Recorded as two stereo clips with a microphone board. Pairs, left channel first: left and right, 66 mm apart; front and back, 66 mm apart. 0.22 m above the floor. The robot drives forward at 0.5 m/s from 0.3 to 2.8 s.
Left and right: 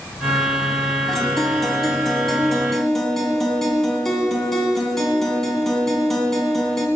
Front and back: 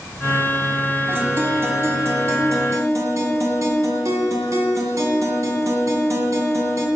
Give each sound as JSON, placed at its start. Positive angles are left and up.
{"t": 1.1, "sound": "a guitar", "azimuth_deg": 170, "distance_m": 1.8}